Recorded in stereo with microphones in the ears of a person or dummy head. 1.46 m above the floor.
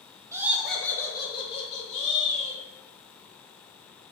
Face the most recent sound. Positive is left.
turn(degrees=45)  # may be behind; listen again after turning